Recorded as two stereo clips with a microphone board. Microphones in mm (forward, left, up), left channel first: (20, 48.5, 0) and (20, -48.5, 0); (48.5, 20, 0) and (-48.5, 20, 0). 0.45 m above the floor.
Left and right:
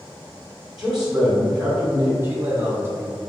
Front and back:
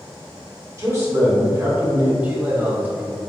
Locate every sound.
0.8 s a man speaking: 170° right, 1.5 m
2.2 s a man speaking: 125° right, 1.0 m